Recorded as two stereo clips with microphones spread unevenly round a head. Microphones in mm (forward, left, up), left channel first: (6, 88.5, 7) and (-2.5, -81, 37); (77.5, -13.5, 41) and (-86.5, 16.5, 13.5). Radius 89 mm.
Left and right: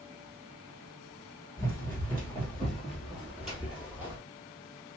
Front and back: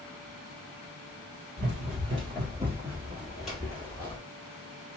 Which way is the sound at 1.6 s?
170° left.